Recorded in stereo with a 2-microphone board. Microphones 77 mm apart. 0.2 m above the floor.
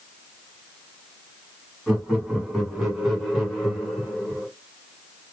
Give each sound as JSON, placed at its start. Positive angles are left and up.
{"t": 1.9, "sound": "laughter", "side_deg": 0, "distance_m": 1.8}